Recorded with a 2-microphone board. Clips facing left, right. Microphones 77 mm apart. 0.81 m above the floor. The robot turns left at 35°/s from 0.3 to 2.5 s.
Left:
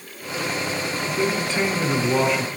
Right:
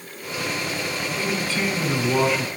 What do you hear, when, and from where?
1.1 s a man speaking: 35° left, 9.5 m; by 2.5 s 10° right, 9.5 m